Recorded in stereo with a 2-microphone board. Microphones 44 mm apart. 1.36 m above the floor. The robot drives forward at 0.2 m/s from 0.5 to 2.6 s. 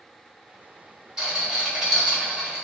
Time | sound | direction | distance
1.2 | a rattle | 15° right (ahead or behind) | 1.6 m